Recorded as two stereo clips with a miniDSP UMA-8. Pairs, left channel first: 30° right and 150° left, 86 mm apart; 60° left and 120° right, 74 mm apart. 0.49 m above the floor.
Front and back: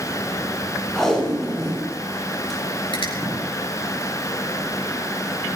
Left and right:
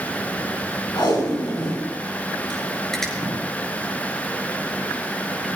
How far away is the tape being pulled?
About 7 m.